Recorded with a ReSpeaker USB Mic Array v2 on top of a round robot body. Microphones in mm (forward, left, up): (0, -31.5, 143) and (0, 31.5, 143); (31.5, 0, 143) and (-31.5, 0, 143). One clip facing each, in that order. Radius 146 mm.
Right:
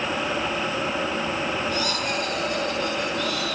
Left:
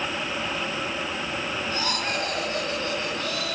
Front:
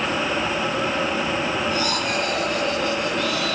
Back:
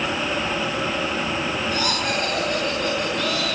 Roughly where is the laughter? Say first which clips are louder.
Right 2 dB, front 1 dB; behind left.